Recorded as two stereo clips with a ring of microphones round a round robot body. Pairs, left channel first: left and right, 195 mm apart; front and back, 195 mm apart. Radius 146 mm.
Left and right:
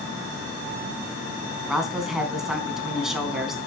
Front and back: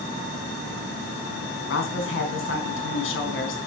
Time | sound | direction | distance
1.7 | a woman speaking | straight ahead | 4 m